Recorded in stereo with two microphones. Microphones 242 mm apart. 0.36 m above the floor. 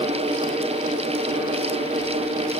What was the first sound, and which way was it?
Only background noise.